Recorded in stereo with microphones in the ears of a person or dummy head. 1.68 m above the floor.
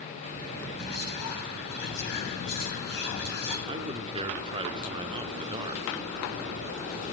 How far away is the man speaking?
About 0.5 m.